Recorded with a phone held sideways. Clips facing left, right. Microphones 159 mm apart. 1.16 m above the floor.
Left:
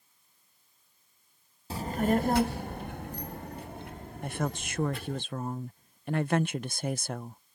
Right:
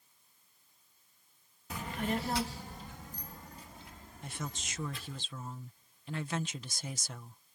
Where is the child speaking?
30° left (ahead or behind); by 5.2 s 60° left (ahead or behind).